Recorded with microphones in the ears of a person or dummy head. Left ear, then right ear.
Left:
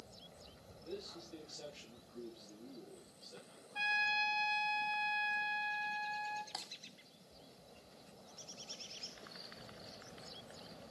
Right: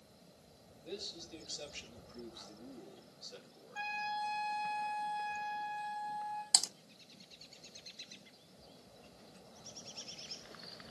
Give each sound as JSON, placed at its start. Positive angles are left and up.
{"t": 0.8, "sound": "a man speaking", "side_deg": -30, "distance_m": 7.5}
{"t": 3.8, "sound": "a trumpet", "side_deg": 25, "distance_m": 4.0}
{"t": 6.5, "sound": "typing on a keyboard", "side_deg": -75, "distance_m": 1.1}